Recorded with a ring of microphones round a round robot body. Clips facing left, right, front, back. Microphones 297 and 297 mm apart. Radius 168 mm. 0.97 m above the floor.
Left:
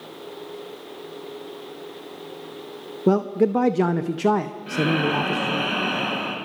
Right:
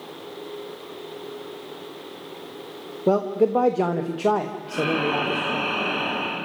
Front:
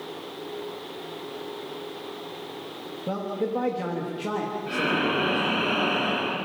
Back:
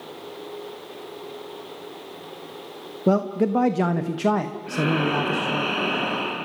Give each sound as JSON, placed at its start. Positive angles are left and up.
{"t": 3.1, "sound": "a man speaking", "azimuth_deg": 150, "distance_m": 0.9}
{"t": 4.7, "sound": "breathing", "azimuth_deg": 85, "distance_m": 7.5}